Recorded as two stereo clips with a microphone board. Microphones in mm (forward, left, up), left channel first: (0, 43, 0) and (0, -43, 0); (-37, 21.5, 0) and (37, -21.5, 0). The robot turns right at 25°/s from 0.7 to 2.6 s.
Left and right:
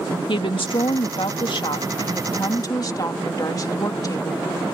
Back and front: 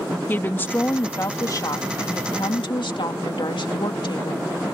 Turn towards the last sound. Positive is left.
turn(degrees=135)